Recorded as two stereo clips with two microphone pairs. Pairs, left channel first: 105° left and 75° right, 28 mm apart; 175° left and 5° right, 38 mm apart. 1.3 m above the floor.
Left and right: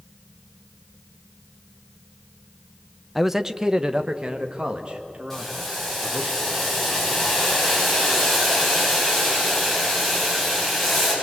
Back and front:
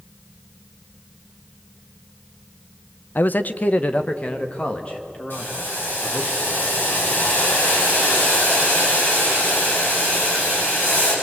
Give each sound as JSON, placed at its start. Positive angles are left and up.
{"t": 3.1, "sound": "a man speaking", "azimuth_deg": -160, "distance_m": 0.7}
{"t": 5.3, "sound": "boiling", "azimuth_deg": -170, "distance_m": 8.5}